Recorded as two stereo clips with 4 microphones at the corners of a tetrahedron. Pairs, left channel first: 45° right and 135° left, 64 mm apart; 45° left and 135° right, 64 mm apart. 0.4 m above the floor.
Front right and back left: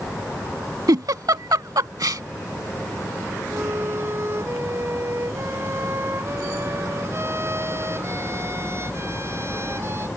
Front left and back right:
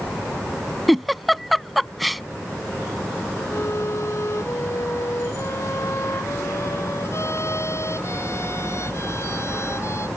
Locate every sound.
0.9 s a giggle: 135° left
3.5 s a violin: 90° left